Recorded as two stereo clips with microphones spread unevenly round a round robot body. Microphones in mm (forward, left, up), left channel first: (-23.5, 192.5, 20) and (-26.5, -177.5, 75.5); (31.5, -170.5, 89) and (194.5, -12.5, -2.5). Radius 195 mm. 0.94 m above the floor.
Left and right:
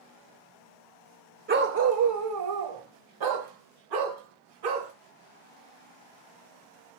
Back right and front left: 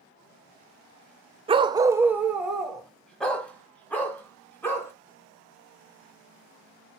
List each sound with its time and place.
1.5 s a dog barking: 40° right, 0.8 m; by 4.9 s 60° right, 3 m